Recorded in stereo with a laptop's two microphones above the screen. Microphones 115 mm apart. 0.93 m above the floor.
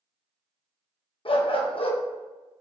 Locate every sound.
1.2 s a dog barking: 55° left (ahead or behind), 0.5 m